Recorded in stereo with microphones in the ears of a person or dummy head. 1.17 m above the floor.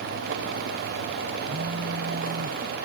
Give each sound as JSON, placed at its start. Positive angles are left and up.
{"t": 1.4, "sound": "a phone buzzing", "side_deg": -75}